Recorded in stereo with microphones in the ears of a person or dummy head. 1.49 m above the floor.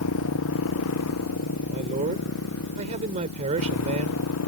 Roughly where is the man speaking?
Right.